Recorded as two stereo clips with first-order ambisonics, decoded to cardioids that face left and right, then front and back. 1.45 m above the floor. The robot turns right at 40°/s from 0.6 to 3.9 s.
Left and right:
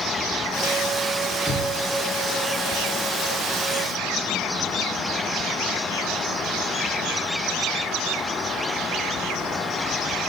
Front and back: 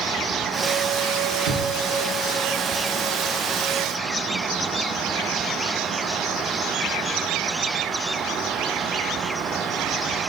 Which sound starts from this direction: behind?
An explosion, at 1.4 s.